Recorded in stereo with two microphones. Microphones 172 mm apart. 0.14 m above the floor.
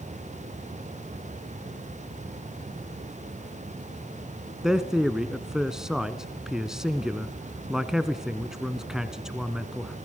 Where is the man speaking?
5° right (ahead or behind), 1.1 m.